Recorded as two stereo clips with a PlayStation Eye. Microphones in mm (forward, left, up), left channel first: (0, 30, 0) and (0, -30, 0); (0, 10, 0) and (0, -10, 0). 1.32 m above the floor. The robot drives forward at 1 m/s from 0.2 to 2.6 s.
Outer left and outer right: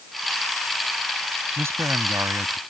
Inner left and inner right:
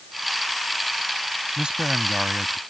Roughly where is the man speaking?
Right.